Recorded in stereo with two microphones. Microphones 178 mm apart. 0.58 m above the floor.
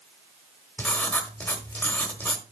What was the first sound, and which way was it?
Writing, 10° left (ahead or behind).